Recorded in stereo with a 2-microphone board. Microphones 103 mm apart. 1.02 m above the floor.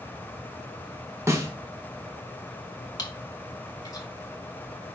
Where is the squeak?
No squeak in this recording.